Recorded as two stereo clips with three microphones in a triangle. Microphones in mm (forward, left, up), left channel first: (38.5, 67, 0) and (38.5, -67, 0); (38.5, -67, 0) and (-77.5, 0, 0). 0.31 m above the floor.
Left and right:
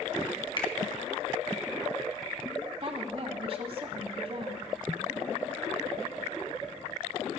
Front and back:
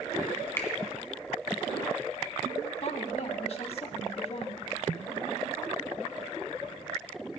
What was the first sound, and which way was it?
A finger snap, 40° left.